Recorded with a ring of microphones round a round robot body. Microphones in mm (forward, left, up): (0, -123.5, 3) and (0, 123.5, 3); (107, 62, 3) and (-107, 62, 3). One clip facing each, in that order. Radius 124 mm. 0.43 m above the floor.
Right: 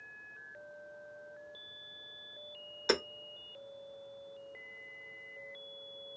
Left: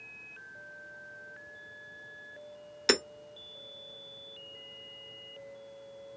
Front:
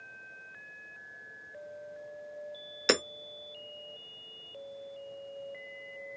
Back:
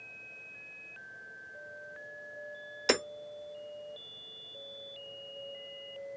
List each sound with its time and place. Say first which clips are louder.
2.9 s hammering: left 3 dB, front 1 dB; 65° left, 0.8 m